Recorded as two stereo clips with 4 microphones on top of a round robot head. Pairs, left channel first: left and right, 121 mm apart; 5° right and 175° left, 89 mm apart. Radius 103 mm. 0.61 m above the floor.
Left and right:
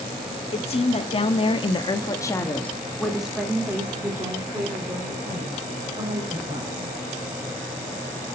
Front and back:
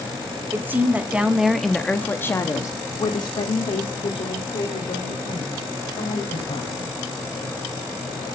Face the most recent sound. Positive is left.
turn(degrees=-30)